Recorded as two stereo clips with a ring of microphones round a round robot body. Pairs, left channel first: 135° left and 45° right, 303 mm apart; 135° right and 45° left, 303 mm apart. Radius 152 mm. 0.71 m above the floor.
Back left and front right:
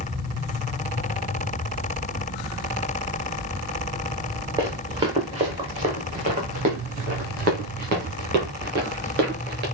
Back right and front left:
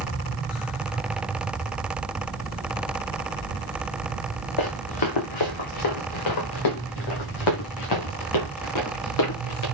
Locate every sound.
4.6 s running footsteps: 120° right, 4 m; by 9.6 s 105° right, 8 m